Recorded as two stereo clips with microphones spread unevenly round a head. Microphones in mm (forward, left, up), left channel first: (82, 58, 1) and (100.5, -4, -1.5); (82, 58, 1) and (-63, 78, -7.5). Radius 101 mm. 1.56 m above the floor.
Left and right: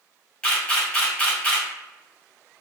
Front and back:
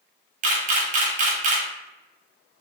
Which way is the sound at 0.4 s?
Straight behind.